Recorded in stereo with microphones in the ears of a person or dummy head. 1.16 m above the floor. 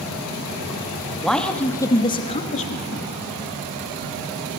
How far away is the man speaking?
About 1.7 m.